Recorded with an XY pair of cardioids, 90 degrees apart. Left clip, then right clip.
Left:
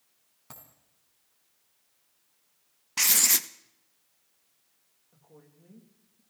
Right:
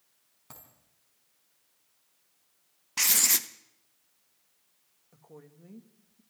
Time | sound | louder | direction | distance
0.5 | a dropped coin | left 2 dB | 15° left | 4.5 m
3.0 | writing | left 1 dB | 10° left | 0.8 m
5.1 | a woman speaking | right 5 dB | 45° right | 2.5 m